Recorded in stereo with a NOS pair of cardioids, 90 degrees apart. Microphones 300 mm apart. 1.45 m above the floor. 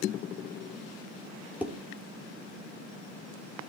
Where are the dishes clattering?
5° right, 3 m.